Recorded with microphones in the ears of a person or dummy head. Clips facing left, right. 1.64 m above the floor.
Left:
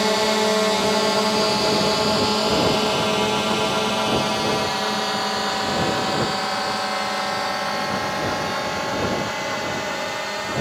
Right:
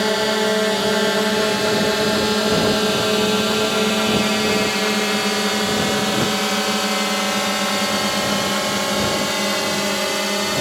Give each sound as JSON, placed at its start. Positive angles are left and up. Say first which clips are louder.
{"t": 0.0, "sound": "a drone", "louder": "right 1 dB", "side_deg": -10}